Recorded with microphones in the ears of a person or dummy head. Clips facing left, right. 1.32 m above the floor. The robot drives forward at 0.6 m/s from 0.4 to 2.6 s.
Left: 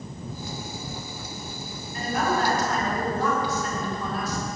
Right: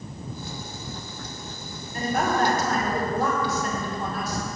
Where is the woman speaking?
45° right (ahead or behind), 4.5 m; by 4.5 s 50° right (ahead or behind), 4.5 m.